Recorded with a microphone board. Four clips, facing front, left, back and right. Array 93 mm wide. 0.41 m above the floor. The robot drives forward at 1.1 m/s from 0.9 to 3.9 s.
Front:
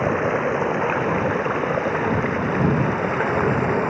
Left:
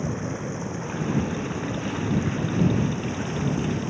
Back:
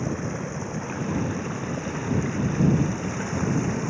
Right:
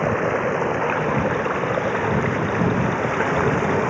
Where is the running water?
45° right; by 3.9 s 50° right.